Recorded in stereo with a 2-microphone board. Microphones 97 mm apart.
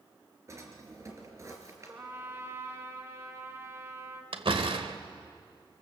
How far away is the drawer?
About 3.5 m.